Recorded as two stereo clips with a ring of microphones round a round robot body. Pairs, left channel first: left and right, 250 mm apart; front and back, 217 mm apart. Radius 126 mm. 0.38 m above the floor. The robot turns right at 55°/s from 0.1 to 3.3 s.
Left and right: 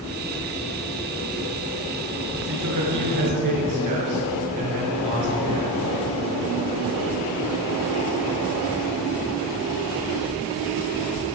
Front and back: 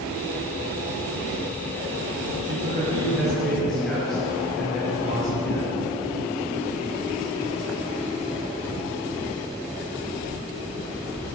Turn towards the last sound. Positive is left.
turn(degrees=-90)